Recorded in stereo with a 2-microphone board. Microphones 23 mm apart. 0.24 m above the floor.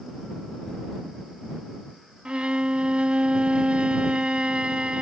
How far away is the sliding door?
I don't hear a sliding door.